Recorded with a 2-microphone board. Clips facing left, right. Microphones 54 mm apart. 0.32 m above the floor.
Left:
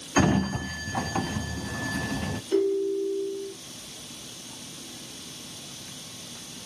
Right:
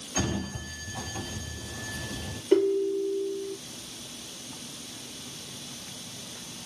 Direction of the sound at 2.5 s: 40° right (ahead or behind).